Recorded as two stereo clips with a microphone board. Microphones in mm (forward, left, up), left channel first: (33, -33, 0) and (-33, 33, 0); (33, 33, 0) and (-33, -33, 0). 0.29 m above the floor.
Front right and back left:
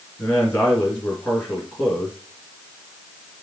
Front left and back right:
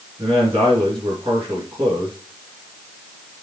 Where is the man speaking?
115° right, 3.5 m.